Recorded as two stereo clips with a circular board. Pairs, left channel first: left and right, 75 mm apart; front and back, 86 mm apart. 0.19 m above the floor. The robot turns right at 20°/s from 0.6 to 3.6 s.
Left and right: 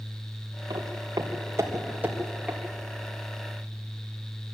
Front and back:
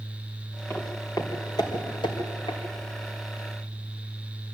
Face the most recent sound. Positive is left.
turn(degrees=15)